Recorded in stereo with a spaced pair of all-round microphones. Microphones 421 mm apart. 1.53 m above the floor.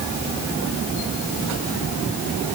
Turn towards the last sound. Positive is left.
No sound to turn to.